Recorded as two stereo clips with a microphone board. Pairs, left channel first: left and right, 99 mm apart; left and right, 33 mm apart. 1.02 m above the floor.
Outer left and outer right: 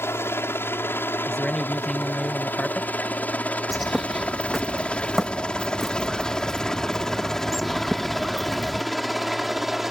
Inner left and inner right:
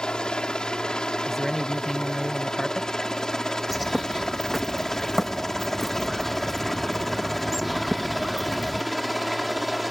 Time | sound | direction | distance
0.0 | a helicopter | 25° left (ahead or behind) | ?
1.3 | a man speaking | 5° left (ahead or behind) | ?
3.7 | a bird | centre (ahead or behind) | ?